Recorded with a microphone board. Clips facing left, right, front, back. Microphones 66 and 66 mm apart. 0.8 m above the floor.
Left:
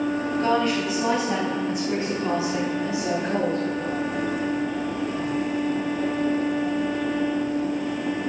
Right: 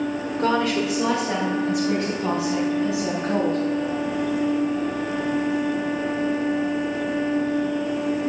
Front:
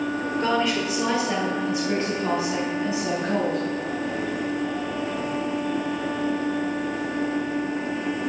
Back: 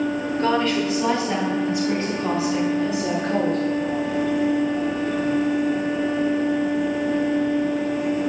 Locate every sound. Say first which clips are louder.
0.4 s a woman speaking: right 2 dB, back 3 dB; 85° right, 1.9 m; by 3.6 s 70° right, 6.5 m